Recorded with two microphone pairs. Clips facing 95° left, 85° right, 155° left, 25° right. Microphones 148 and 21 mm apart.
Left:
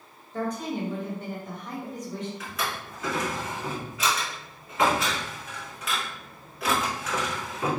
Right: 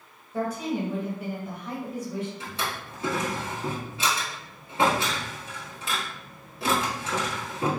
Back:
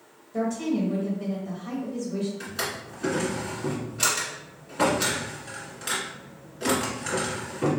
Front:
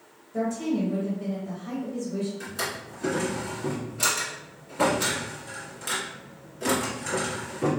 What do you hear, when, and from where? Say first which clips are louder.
0.3 s a woman speaking: right 2 dB, back 1 dB; 160° right, 1.3 m
2.4 s a drawer: even, even; 145° right, 1.5 m